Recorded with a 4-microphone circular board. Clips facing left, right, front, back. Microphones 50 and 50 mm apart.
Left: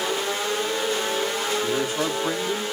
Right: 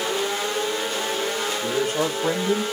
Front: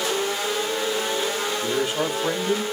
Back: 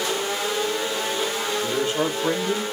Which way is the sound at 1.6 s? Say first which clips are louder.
Right 1 dB, back 1 dB; 75° right.